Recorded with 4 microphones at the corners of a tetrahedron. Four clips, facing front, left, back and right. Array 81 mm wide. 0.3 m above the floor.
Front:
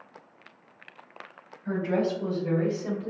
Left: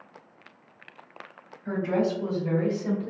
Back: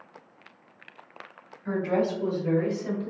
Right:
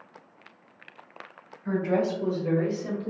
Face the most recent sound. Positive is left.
turn(degrees=-5)